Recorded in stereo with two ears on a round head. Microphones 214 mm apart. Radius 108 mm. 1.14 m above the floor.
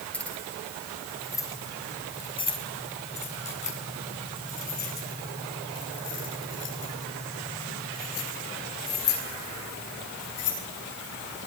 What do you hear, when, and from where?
0.1 s keys jangling: 5° left (ahead or behind), 8 m; by 10.6 s 75° left (ahead or behind), 11.5 m